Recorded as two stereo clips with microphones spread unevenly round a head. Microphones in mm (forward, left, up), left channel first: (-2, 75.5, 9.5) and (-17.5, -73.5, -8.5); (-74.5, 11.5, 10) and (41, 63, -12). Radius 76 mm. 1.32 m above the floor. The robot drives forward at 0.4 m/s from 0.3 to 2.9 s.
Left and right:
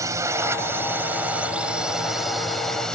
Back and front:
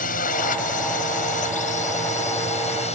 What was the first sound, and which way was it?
A drone, 165° right.